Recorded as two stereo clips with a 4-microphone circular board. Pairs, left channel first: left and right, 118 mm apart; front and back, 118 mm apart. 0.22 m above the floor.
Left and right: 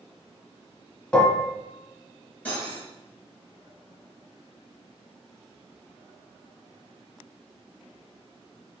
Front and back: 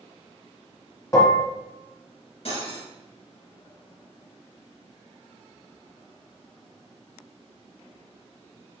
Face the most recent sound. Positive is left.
turn(degrees=15)